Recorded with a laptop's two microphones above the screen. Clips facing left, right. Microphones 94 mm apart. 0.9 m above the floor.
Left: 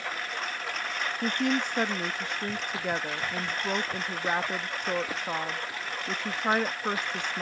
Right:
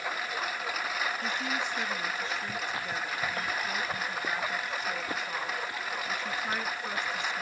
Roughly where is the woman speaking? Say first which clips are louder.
Left 5 dB; left.